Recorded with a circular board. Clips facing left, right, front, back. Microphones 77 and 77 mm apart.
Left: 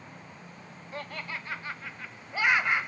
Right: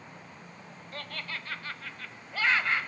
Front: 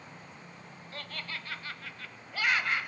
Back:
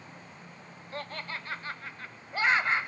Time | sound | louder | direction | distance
0.9 | laughter | left 2 dB, back 4 dB | 150° left | 1.5 m